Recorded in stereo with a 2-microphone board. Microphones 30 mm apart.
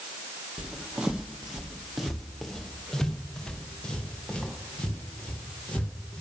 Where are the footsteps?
40° right (ahead or behind), 2.5 m; by 6.2 s 40° left (ahead or behind), 6.5 m.